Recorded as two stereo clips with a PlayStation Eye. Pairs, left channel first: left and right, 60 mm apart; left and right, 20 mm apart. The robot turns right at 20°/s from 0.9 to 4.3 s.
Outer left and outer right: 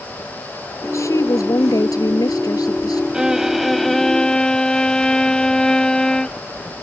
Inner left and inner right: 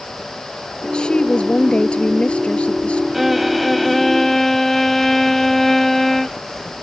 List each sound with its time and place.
0.8 s a woman speaking: 50° left; by 3.0 s 95° left
3.1 s a violin: 10° right (ahead or behind); by 6.4 s 10° left (ahead or behind)